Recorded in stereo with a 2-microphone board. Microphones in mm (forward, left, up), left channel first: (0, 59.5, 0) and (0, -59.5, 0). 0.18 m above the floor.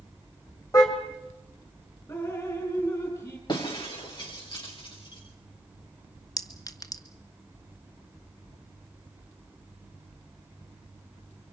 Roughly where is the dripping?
Left.